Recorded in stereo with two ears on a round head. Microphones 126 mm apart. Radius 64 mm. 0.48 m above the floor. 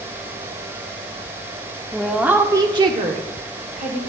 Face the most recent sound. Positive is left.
turn(degrees=-55)  # may be behind; listen again after turning